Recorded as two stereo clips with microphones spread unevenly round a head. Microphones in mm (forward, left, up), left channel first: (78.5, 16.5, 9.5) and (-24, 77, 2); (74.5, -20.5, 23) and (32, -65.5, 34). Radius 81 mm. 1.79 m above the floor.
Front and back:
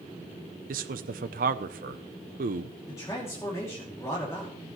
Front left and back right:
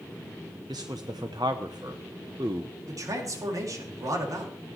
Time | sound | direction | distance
0.7 | a man speaking | 165° left | 0.6 m
2.9 | a man speaking | 105° right | 2.5 m